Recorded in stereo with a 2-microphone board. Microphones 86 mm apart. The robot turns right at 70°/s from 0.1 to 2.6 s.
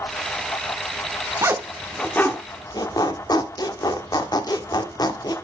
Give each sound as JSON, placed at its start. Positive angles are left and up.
{"t": 1.4, "sound": "a zipper", "side_deg": -35, "distance_m": 1.1}